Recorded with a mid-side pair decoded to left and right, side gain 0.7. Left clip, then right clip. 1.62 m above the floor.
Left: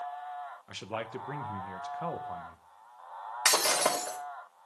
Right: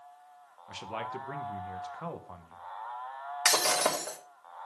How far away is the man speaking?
About 1.2 m.